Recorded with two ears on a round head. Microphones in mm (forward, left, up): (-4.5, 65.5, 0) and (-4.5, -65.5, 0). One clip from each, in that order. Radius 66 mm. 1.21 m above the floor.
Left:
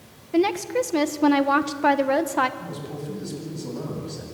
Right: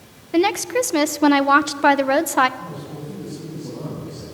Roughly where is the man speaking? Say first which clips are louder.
Right 1 dB; left.